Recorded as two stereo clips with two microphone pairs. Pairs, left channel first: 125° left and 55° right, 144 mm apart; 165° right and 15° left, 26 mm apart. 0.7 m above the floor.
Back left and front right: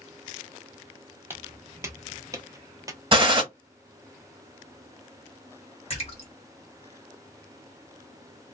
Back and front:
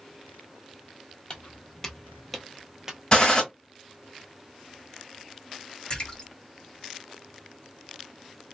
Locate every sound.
1.3 s footsteps: 120° right, 0.9 m; by 3.0 s 20° right, 0.7 m
3.1 s a gunshot: 110° right, 1.0 m
5.9 s a splash: 145° left, 1.3 m